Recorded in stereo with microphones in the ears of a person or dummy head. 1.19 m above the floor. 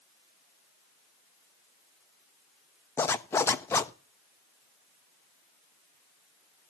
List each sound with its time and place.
3.0 s a zipper: 15° left (ahead or behind), 0.6 m